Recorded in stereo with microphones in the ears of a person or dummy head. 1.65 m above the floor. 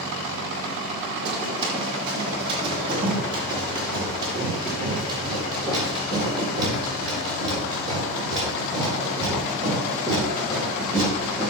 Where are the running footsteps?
30° right (ahead or behind), 5 m; by 11.5 s 20° right (ahead or behind), 15.5 m.